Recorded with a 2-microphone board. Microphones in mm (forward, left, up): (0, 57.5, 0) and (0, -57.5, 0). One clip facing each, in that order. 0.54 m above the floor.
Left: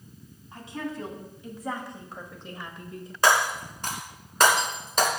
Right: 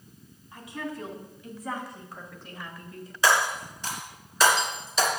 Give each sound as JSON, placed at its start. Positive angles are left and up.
{"t": 0.5, "sound": "a woman speaking", "side_deg": 30, "distance_m": 3.5}
{"t": 3.2, "sound": "breaking glass", "side_deg": 55, "distance_m": 2.5}